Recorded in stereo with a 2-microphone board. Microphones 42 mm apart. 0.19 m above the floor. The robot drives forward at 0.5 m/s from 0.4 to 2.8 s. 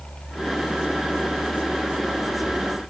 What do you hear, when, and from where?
Only background noise.